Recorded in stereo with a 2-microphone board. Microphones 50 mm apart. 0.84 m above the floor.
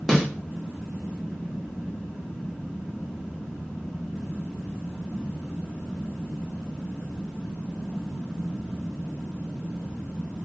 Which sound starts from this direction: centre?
A snare drum, at 0.1 s.